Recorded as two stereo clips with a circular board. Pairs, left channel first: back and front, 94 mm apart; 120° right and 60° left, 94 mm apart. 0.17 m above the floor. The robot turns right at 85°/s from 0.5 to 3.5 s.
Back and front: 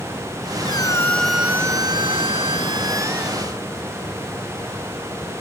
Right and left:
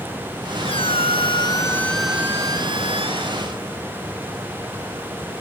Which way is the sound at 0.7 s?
145° right.